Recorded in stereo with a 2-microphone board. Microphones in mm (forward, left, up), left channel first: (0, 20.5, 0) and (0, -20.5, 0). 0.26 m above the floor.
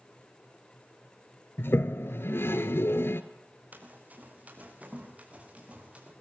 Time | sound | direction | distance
1.6 | a toilet flushing | 75° left (ahead or behind) | 1.2 m
3.7 | running footsteps | 45° right (ahead or behind) | 5 m